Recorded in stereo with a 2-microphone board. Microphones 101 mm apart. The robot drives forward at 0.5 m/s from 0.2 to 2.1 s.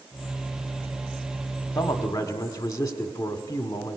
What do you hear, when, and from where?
1.8 s a man speaking: 30° left (ahead or behind), 1.4 m